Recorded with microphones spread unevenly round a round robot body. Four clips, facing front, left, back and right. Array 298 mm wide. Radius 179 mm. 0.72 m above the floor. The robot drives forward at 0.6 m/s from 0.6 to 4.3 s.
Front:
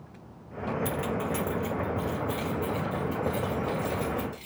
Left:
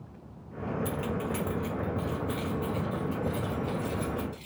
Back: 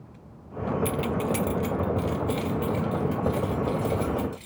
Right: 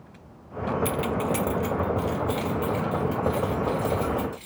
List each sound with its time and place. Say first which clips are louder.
0.8 s keys jangling: right 6 dB, back 3 dB; 95° right, 0.6 m; by 4.5 s 165° right, 2 m